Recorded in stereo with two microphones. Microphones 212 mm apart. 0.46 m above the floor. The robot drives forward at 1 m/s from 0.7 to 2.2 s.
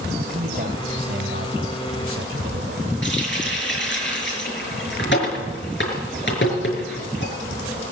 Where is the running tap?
55° left (ahead or behind), 5.5 m.